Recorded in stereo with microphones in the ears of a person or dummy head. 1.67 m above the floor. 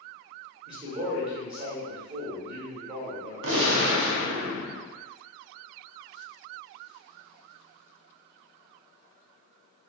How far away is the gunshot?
About 0.6 m.